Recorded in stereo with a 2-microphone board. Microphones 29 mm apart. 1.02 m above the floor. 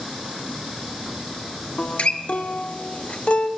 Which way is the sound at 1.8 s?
45° left (ahead or behind).